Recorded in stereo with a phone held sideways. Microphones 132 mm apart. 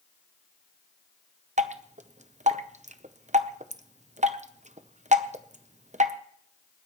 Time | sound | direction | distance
1.6 | dripping | 65° right (ahead or behind) | 0.8 m